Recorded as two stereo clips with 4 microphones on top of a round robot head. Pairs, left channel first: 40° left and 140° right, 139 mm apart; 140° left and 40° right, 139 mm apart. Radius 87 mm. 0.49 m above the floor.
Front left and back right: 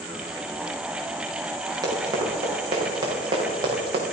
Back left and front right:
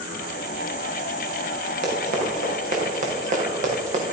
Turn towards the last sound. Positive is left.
turn(degrees=-80)